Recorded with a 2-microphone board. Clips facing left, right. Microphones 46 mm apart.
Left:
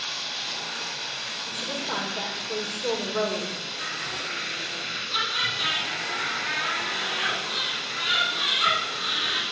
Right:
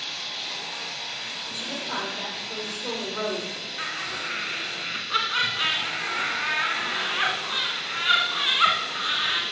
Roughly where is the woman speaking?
Left.